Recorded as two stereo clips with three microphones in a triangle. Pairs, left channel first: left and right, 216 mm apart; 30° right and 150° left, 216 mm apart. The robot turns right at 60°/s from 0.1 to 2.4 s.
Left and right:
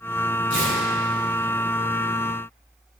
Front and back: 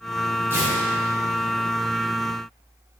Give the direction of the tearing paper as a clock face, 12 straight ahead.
10 o'clock.